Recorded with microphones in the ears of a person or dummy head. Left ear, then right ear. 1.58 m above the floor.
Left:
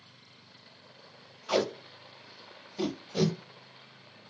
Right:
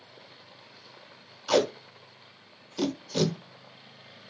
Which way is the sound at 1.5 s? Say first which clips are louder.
Right 4 dB; 85° right.